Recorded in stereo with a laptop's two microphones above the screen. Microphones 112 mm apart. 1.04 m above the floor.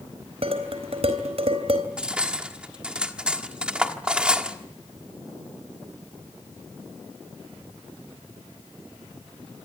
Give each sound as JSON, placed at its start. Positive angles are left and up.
{"t": 0.4, "sound": "dishes clattering", "side_deg": -55, "distance_m": 3.5}
{"t": 2.0, "sound": "cutlery clinking", "side_deg": -10, "distance_m": 1.4}